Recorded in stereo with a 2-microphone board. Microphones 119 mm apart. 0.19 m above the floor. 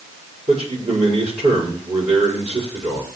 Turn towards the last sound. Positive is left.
turn(degrees=-70)  # may be behind; listen again after turning